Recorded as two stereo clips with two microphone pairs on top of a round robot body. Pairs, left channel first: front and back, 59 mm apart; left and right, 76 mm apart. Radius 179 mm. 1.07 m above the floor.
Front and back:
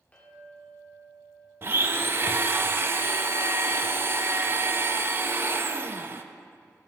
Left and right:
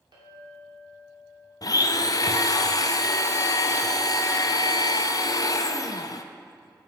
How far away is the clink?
About 2.5 m.